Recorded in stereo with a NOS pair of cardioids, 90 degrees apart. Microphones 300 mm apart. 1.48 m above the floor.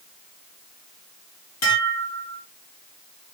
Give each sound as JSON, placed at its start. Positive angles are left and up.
{"t": 1.6, "sound": "dishes clattering", "azimuth_deg": 60, "distance_m": 2.5}